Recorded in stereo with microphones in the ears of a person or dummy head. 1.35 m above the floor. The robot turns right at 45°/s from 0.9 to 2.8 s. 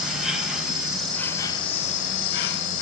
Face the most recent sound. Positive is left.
turn(degrees=80)